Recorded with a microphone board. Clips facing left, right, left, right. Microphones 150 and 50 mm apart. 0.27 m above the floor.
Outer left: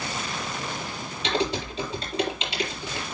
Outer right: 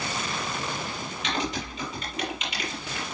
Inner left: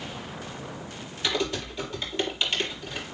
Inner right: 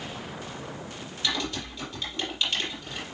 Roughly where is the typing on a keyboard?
Left.